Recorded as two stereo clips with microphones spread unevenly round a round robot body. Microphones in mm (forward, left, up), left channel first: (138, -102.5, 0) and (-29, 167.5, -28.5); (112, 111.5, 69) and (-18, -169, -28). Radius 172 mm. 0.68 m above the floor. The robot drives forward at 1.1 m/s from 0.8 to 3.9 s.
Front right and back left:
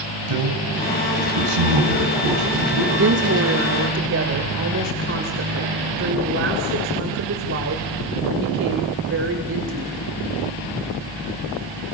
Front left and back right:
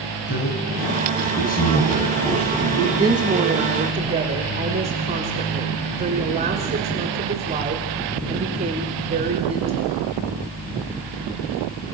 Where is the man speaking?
130° left, 5 m; by 2.9 s 145° left, 6.5 m.